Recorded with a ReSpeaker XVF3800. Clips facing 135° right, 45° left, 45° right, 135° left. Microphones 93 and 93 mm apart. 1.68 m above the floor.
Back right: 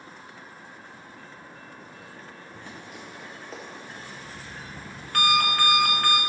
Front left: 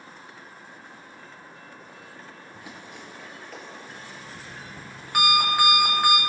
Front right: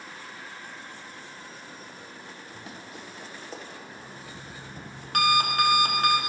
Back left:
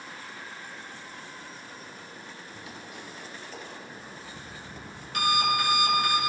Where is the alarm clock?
25° right, 1.8 m.